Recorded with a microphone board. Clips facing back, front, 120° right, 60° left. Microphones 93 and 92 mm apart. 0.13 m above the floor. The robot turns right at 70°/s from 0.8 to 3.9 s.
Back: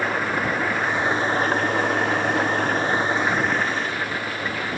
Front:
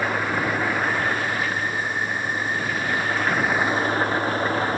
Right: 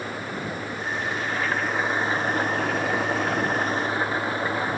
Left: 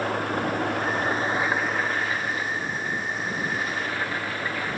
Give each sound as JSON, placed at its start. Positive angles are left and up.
{"t": 0.0, "sound": "an engine running", "azimuth_deg": 90}